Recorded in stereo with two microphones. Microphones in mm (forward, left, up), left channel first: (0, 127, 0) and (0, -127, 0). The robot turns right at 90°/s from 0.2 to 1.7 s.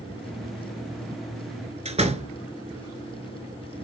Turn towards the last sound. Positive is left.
turn(degrees=-25)  # may be behind; listen again after turning